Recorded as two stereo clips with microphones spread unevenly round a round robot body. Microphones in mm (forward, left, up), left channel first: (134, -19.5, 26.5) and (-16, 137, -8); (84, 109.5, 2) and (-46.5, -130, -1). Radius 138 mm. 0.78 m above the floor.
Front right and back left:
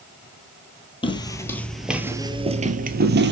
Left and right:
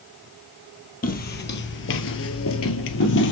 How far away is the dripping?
I don't hear dripping.